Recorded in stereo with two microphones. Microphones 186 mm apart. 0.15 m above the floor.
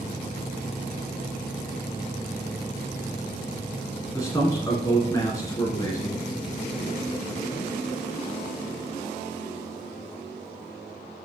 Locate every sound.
4.1 s a man speaking: 15° left (ahead or behind), 1.5 m